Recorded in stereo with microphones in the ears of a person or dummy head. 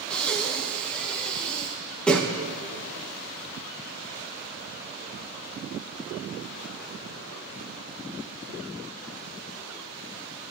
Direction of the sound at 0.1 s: 5° left (ahead or behind).